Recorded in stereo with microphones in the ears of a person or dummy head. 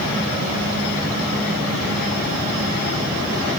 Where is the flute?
I don't hear a flute.